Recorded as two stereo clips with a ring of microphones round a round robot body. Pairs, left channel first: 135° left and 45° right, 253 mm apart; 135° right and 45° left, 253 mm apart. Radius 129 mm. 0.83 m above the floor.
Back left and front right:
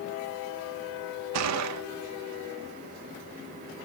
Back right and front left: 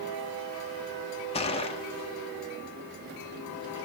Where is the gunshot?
65° right, 1.1 m.